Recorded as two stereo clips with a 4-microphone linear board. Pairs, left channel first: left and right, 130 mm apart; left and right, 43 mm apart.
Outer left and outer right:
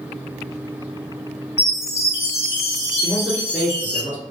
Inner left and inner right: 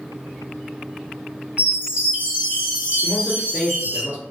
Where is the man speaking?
20° right (ahead or behind), 1.8 m.